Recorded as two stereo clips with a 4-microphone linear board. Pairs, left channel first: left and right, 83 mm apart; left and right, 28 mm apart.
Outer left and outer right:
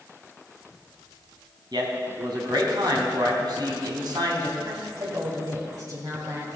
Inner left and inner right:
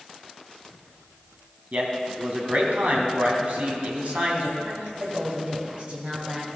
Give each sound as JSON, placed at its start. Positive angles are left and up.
{"t": 1.7, "sound": "a man speaking", "side_deg": -55, "distance_m": 2.5}
{"t": 4.7, "sound": "a woman speaking", "side_deg": -45, "distance_m": 3.0}